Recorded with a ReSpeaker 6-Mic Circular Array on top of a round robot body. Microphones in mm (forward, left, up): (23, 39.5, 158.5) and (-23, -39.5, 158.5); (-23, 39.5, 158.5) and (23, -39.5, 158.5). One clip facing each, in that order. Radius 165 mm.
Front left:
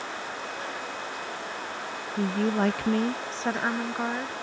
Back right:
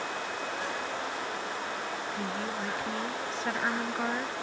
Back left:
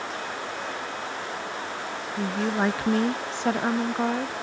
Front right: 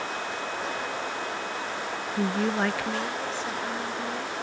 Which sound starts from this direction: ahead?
A woman speaking, at 2.1 s.